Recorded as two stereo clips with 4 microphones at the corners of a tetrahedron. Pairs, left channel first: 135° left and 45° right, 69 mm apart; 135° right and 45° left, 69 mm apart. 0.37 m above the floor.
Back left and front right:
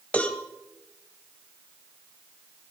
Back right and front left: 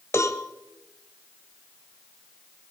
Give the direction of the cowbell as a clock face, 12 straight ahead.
5 o'clock.